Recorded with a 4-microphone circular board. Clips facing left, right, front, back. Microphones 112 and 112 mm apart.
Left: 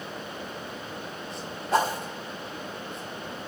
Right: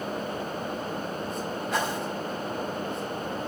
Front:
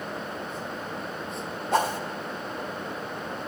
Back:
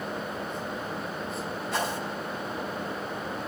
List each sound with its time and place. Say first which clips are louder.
1.7 s a whoosh: left 6 dB, front 7 dB; 35° left, 1.7 m